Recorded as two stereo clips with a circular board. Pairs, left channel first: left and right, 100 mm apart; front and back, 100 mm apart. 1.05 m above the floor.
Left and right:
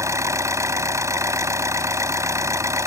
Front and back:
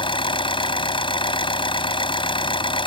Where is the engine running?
30° right.